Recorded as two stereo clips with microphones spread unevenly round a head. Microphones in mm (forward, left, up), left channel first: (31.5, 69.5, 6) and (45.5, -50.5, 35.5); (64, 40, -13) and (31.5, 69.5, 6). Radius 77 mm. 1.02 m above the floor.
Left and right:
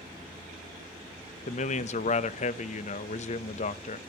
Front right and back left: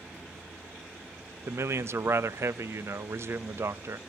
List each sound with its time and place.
1.5 s a man speaking: 100° left, 0.9 m